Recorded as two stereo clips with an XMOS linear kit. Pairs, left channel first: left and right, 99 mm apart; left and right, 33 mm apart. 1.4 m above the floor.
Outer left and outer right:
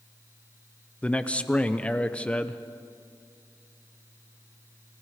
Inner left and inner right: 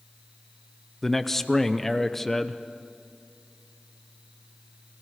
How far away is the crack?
I don't hear a crack.